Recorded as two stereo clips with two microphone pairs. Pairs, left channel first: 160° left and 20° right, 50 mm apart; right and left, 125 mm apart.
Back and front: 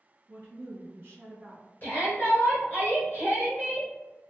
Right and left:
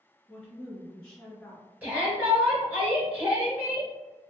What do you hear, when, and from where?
0.3 s a woman speaking: 15° right, 2.0 m
1.8 s a shout: 160° left, 1.6 m